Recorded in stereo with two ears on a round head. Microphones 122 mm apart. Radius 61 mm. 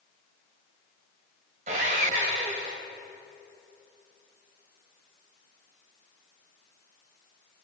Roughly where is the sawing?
Right.